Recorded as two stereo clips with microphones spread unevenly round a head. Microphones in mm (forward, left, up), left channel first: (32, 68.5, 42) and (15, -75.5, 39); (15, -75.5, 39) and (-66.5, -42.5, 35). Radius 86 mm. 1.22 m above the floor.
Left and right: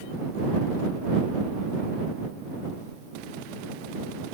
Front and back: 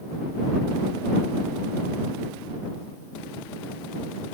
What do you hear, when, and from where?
Only background noise.